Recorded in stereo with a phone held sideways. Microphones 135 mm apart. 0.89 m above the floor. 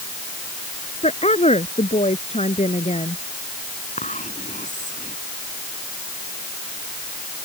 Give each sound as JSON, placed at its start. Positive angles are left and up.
{"t": 1.0, "sound": "a woman speaking", "side_deg": 50}
{"t": 4.0, "sound": "whispering", "side_deg": 65}